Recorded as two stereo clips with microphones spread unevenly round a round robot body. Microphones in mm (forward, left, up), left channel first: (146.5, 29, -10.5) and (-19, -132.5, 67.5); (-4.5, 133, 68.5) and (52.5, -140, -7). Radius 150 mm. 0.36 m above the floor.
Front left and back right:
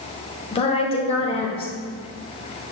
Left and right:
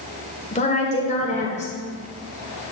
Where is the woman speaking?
30° left, 1.1 m.